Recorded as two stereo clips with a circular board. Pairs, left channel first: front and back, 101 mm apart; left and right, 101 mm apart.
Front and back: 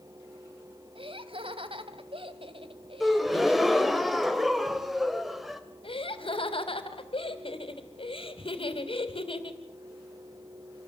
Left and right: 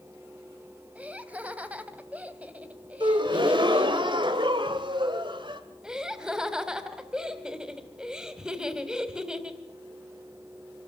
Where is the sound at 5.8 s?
10° right, 3 m.